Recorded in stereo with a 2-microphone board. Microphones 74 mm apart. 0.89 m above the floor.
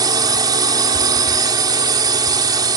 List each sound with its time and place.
0.0 s a drone: 65° right (ahead or behind)